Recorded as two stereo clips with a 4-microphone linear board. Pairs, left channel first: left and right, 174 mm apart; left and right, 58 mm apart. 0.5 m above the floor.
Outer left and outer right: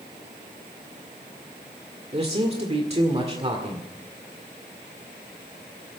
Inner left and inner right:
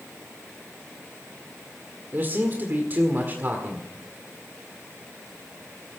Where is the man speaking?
35° right (ahead or behind), 1.8 m.